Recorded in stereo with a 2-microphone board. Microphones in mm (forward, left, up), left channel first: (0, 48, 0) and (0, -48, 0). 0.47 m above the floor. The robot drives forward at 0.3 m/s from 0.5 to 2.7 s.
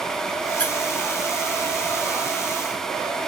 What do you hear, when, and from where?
0.6 s a squeak: 15° left (ahead or behind), 0.5 m; by 0.7 s 10° left (ahead or behind), 0.6 m